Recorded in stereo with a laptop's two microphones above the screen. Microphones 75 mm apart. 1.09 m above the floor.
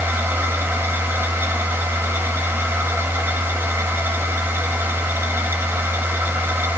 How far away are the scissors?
No scissors in this recording.